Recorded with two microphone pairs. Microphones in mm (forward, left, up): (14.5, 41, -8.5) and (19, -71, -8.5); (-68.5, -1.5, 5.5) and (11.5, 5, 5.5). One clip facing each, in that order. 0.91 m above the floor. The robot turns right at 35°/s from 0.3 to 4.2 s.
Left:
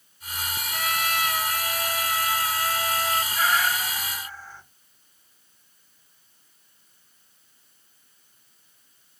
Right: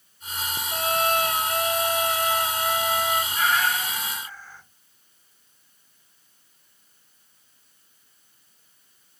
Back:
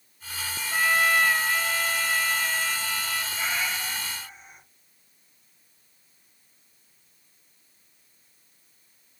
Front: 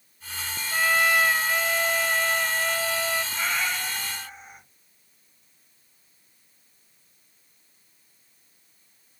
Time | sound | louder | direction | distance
0.7 | a trumpet | right 5 dB, front 1 dB | 100° right | 0.5 m
3.3 | a cat meowing | left 1 dB, front 2 dB | straight ahead | 1.9 m